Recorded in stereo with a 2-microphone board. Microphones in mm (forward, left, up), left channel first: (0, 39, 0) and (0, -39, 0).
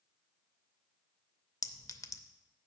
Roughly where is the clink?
Left.